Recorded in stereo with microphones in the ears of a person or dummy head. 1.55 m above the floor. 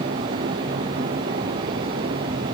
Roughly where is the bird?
No bird in this recording.